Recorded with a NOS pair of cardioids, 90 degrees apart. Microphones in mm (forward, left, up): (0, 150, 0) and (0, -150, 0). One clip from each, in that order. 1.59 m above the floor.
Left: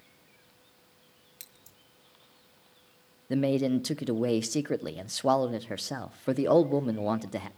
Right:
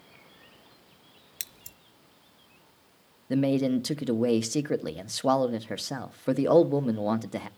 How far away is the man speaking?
About 0.9 m.